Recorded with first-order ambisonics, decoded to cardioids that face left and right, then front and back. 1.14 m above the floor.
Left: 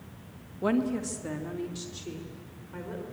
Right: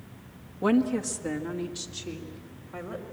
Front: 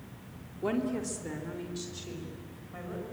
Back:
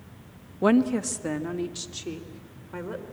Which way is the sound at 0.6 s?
170° right.